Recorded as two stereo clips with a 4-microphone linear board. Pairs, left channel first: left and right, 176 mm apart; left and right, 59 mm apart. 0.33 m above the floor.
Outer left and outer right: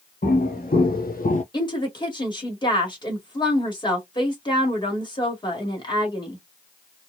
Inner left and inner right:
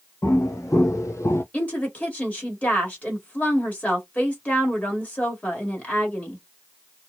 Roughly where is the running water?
I don't hear running water.